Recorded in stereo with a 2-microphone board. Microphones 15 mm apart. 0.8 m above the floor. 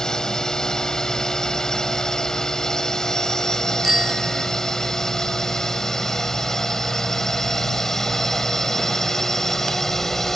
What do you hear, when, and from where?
0.0 s a drone: 50° left (ahead or behind); by 10.4 s 30° left (ahead or behind)
3.8 s a bicycle bell: 15° right (ahead or behind)